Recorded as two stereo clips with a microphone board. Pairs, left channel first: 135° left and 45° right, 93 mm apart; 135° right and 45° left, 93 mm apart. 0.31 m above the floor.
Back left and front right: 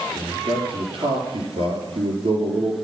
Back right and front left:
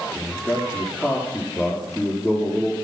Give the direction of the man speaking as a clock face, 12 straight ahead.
1 o'clock.